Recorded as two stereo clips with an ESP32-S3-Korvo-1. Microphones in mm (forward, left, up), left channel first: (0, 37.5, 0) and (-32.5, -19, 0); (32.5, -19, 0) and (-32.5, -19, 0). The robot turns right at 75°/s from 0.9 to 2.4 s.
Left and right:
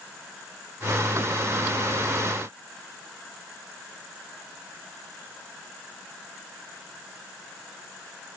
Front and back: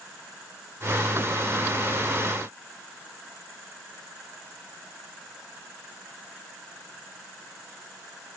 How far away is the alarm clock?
I don't hear an alarm clock.